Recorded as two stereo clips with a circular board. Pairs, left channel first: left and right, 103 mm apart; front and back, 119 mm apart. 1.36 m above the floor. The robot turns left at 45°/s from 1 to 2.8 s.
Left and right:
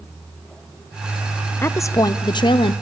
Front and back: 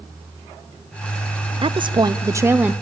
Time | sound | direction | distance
1.6 | a woman speaking | 155° left | 0.5 m